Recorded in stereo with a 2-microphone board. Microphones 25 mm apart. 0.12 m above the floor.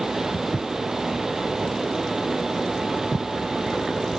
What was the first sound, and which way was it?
Footsteps, 80° left.